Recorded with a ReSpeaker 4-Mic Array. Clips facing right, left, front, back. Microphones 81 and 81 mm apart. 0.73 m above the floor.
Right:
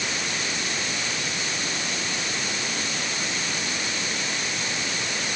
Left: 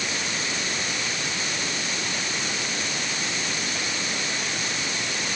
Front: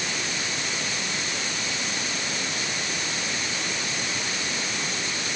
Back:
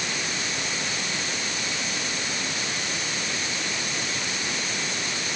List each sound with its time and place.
Only background noise.